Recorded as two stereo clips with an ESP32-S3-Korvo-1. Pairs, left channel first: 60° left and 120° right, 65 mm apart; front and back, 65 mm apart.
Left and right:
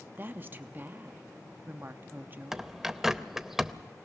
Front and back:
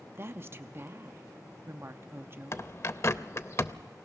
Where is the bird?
40° right, 0.5 m.